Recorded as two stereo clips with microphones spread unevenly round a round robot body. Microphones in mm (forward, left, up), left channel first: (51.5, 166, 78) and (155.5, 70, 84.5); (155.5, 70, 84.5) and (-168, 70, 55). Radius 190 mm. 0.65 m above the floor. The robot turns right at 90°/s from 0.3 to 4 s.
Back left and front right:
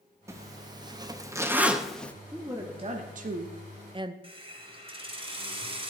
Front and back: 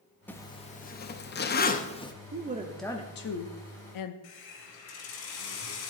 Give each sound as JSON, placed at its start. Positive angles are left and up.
{"t": 0.3, "sound": "a zipper", "azimuth_deg": -90, "distance_m": 0.9}
{"t": 2.3, "sound": "a woman speaking", "azimuth_deg": -135, "distance_m": 0.9}
{"t": 4.2, "sound": "a hiss", "azimuth_deg": 10, "distance_m": 1.9}